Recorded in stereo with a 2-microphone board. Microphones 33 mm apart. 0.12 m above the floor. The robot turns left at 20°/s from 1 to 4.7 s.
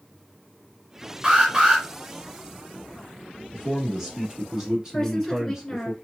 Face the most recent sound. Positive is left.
turn(degrees=15)  # may be behind; listen again after turning